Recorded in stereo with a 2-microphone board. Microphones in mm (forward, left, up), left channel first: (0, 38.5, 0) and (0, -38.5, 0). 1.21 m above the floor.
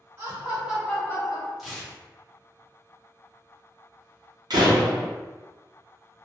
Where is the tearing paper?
5° right (ahead or behind), 0.7 m.